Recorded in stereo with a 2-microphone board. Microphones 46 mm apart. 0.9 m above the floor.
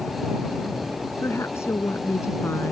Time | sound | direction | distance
1.2 | a woman speaking | 75° left (ahead or behind) | ?